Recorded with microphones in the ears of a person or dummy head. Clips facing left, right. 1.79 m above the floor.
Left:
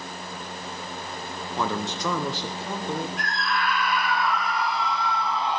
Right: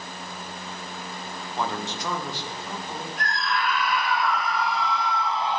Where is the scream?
5° right (ahead or behind), 1.1 m.